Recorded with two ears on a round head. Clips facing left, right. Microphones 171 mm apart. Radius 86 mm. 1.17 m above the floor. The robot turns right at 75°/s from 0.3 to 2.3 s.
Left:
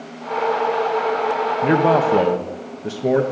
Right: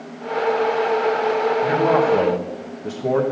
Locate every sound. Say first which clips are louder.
1.6 s a man speaking: left 4 dB; 115° left, 1.2 m; by 3.2 s 165° left, 1.2 m